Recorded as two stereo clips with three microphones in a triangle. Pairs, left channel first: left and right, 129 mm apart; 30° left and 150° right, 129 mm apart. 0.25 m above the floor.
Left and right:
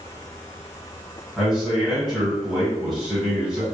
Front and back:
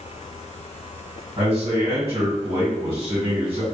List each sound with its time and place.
1.4 s a man speaking: 175° left, 1.4 m